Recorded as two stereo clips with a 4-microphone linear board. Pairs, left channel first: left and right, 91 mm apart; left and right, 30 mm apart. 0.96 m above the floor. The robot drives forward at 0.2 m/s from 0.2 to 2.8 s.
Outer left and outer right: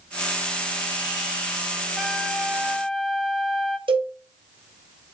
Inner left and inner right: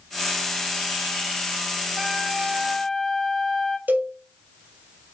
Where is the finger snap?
I don't hear a finger snap.